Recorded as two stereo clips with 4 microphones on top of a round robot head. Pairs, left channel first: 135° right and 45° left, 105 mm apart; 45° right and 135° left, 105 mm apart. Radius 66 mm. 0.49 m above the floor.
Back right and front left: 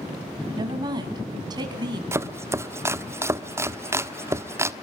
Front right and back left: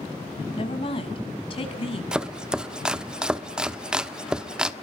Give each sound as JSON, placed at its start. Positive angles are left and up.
{"t": 0.6, "sound": "a woman speaking", "azimuth_deg": -5, "distance_m": 5.0}
{"t": 2.1, "sound": "chopping", "azimuth_deg": 65, "distance_m": 1.2}